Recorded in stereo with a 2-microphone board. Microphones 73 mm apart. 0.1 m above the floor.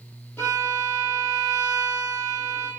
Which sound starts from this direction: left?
A violin, at 0.4 s.